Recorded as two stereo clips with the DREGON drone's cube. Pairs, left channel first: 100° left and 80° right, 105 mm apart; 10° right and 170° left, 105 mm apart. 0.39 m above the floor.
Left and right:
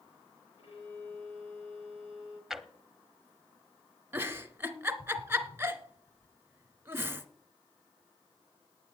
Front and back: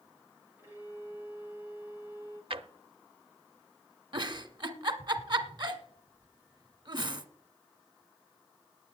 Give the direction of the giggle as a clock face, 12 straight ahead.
5 o'clock.